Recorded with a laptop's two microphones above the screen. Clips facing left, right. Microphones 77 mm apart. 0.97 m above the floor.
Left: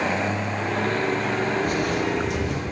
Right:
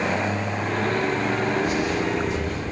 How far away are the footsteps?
About 2.0 m.